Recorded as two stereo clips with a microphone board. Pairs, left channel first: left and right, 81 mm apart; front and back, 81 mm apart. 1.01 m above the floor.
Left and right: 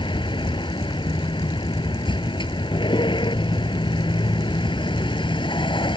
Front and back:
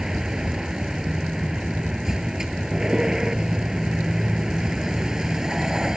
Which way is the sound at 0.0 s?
100° left.